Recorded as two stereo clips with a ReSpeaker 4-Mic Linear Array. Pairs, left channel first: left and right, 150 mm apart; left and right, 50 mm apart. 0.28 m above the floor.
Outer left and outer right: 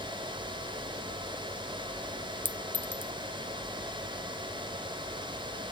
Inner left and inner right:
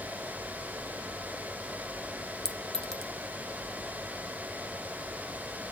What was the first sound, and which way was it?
A clink, 15° left (ahead or behind).